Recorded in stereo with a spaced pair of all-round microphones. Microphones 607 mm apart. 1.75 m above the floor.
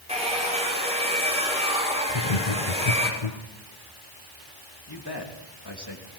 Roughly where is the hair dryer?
Centre.